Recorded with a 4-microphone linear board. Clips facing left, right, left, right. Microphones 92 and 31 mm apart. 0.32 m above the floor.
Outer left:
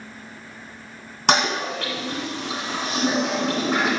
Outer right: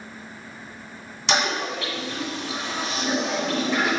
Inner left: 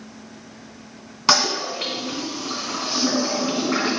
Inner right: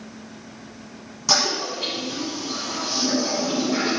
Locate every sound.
1.3 s a toilet flushing: 55° left (ahead or behind), 2.5 m